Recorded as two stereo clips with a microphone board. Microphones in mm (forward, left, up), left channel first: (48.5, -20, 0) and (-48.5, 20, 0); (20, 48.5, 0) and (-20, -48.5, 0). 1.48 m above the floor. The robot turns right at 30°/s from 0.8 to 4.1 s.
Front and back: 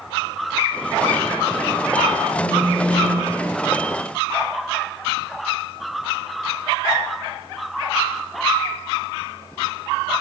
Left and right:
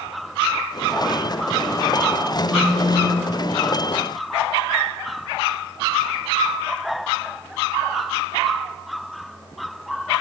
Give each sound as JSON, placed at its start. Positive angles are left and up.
{"t": 2.4, "sound": "a phone buzzing", "azimuth_deg": 160, "distance_m": 3.0}